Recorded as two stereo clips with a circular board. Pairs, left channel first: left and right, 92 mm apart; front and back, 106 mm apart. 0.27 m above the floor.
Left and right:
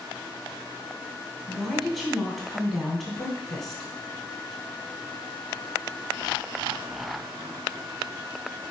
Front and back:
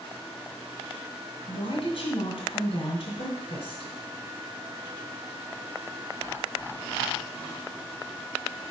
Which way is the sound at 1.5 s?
5° left.